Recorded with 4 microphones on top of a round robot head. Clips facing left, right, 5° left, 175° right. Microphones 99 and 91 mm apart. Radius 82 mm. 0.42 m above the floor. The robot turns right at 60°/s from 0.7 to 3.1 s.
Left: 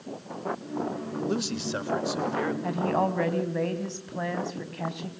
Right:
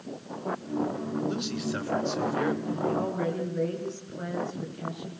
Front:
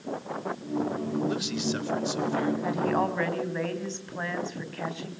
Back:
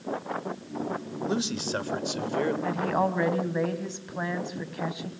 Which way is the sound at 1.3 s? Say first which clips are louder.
Left 1 dB, even; 120° left.